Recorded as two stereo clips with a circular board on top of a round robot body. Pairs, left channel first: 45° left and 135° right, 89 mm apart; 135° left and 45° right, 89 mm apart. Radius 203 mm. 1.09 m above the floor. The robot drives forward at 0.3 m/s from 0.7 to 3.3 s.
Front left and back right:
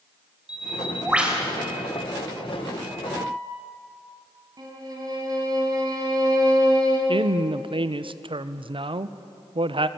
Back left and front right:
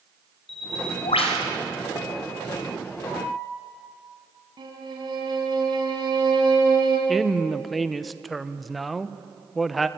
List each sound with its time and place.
0.5 s a bird: 145° left, 2.0 m
3.1 s a piano: 145° left, 7 m
4.6 s a violin: 85° right, 4 m
7.1 s a woman speaking: 135° right, 1.2 m